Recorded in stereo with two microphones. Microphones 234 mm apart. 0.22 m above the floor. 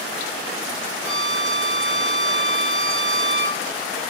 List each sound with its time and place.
1.0 s a violin: 50° right (ahead or behind), 1.7 m